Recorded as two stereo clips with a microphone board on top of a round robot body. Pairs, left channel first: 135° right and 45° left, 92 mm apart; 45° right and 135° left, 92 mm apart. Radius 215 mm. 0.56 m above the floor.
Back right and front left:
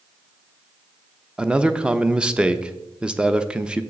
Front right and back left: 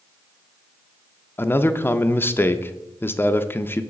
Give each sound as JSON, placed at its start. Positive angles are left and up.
{"t": 1.4, "sound": "a man speaking", "azimuth_deg": -20, "distance_m": 0.7}